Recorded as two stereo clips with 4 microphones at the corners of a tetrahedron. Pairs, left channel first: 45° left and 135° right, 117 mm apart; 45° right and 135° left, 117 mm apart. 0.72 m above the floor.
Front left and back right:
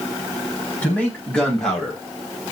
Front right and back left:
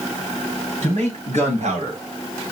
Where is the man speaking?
125° left, 5 m; by 2.0 s 135° left, 3.5 m.